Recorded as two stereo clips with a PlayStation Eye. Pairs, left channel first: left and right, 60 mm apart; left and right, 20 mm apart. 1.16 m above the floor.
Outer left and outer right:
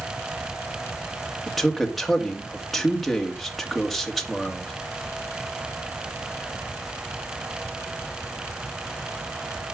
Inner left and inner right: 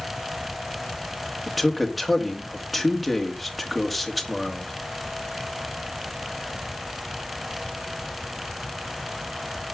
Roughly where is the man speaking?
Centre.